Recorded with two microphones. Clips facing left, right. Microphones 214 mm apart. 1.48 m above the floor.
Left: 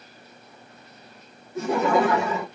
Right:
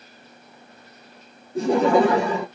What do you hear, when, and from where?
1.6 s laughter: 30° right (ahead or behind), 0.7 m